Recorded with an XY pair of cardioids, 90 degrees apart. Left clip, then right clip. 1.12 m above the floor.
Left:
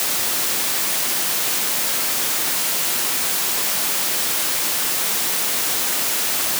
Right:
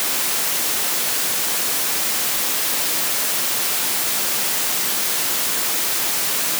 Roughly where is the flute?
I don't hear a flute.